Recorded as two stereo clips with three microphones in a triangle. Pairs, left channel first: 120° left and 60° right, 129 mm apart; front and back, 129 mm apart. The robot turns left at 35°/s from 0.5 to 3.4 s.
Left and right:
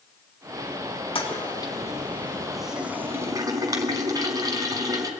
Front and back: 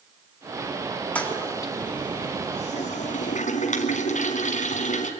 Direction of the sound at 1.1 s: 80° left.